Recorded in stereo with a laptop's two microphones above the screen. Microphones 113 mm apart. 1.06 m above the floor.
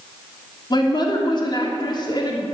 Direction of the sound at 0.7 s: 40° left (ahead or behind).